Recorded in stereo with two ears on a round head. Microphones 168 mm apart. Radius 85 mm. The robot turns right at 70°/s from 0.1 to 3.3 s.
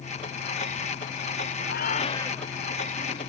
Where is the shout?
120° left; by 2.5 s 175° left.